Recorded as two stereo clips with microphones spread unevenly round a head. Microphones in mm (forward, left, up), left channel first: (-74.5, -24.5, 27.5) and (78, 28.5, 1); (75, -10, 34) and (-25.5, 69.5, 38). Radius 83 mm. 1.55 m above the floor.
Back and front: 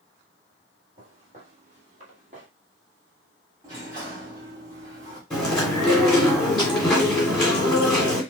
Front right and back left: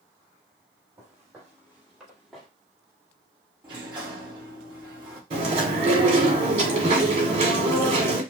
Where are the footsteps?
75° left, 3 m; by 2.5 s 50° left, 1.9 m.